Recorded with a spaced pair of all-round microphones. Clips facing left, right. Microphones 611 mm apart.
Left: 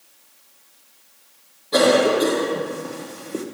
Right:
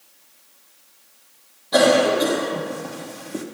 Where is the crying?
No crying in this recording.